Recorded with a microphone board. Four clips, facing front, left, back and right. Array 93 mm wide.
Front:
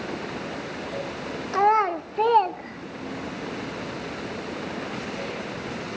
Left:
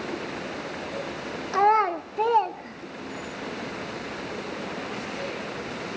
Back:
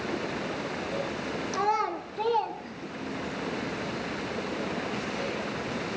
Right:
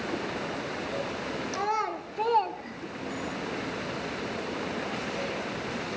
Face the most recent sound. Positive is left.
turn(degrees=-40)